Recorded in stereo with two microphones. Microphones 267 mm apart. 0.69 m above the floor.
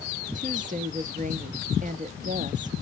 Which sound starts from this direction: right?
A woman speaking, at 0.3 s.